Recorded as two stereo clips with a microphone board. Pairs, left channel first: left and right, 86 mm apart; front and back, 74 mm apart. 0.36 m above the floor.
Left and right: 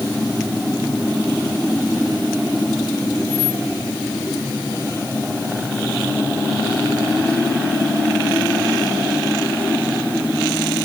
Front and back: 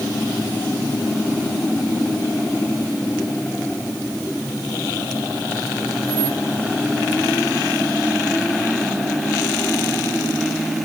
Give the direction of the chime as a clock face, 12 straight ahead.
I don't hear a chime.